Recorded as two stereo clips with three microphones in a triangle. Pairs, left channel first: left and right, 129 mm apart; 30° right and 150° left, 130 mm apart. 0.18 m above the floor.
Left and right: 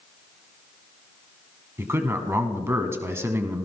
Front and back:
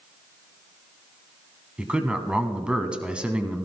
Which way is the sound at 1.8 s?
135° right.